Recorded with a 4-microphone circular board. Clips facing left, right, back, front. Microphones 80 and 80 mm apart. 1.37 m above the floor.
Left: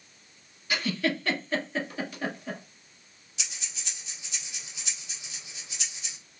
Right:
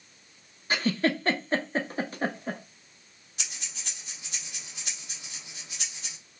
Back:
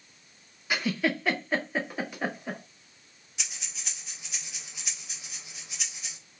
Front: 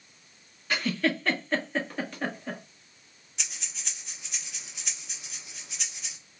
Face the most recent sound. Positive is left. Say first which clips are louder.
# even, even
turn(degrees=-95)